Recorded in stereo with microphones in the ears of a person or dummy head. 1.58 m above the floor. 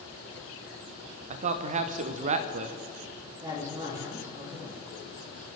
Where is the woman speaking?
20° right (ahead or behind), 3.5 m.